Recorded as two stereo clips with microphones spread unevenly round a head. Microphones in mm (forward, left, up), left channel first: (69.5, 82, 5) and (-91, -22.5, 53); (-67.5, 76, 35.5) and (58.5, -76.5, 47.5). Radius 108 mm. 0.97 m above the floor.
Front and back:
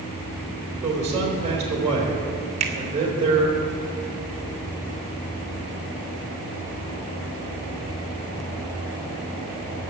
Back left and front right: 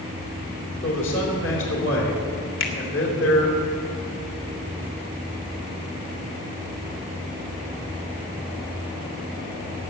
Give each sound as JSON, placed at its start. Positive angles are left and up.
{"t": 0.8, "sound": "a man speaking", "azimuth_deg": 155, "distance_m": 3.5}
{"t": 2.6, "sound": "a finger snap", "azimuth_deg": 155, "distance_m": 2.0}